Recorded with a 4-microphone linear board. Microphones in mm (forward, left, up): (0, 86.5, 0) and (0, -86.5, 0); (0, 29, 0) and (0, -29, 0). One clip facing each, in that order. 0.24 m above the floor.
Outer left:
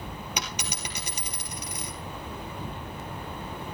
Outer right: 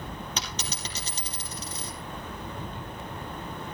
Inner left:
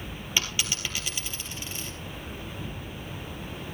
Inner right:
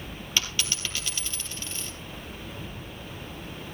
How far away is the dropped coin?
About 3 m.